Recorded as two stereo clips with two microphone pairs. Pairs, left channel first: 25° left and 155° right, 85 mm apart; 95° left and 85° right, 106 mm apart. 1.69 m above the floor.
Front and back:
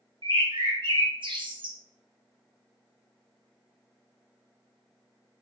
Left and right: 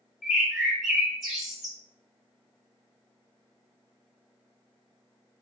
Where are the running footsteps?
No running footsteps in this recording.